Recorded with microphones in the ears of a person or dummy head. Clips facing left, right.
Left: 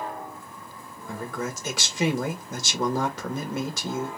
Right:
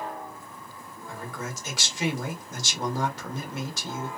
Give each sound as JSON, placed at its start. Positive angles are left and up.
{"t": 1.1, "sound": "a man speaking", "side_deg": 80, "distance_m": 1.5}